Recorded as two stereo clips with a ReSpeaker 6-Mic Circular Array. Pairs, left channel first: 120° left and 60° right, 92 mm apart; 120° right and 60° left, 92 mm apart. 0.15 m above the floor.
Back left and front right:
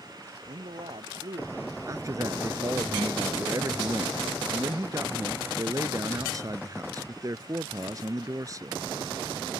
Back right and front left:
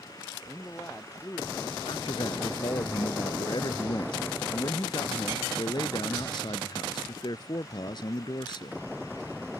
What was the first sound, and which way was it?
A man speaking, 55° right.